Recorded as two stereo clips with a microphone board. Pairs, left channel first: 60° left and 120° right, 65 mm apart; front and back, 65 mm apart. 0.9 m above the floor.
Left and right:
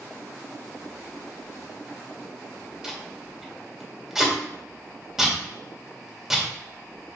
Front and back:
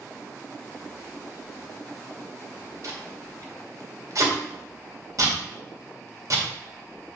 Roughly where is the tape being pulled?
Behind.